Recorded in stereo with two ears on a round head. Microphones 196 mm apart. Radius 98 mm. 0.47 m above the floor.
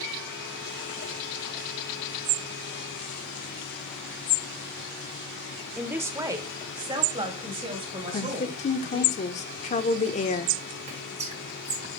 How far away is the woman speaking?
About 0.9 m.